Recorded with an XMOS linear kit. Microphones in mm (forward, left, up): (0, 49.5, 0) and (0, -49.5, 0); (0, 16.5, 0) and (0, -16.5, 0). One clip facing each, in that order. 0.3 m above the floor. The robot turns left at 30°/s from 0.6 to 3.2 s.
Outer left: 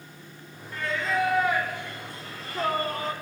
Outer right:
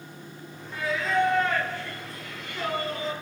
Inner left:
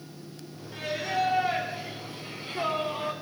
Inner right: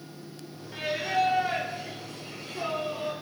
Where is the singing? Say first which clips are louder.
Outer right 2 dB, inner right 2 dB; 170° right, 3 m; by 3.1 s 120° left, 3 m.